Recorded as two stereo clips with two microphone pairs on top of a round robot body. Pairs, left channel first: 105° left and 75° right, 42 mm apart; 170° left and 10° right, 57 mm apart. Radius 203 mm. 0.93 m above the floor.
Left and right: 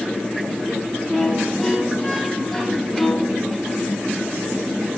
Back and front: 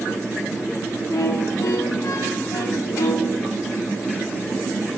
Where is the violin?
170° right, 0.6 m.